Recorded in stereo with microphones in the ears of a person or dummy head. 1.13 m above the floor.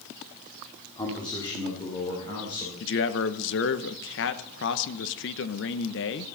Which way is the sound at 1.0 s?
20° left (ahead or behind).